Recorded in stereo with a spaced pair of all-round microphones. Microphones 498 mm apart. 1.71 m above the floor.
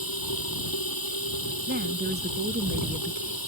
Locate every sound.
0.0 s running water: 45° left (ahead or behind)
1.7 s a woman speaking: 20° right (ahead or behind)